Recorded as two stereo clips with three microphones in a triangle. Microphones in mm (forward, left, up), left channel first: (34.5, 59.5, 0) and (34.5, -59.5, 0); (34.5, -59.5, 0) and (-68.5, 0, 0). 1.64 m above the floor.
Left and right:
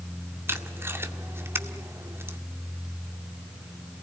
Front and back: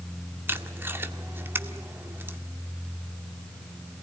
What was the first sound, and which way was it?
Tape being pulled, 150° right.